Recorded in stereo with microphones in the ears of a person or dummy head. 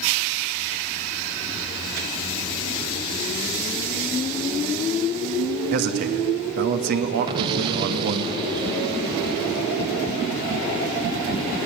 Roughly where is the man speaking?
Right.